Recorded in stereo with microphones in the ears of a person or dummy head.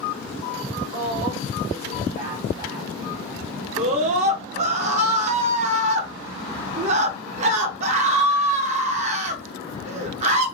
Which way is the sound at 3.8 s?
45° right (ahead or behind).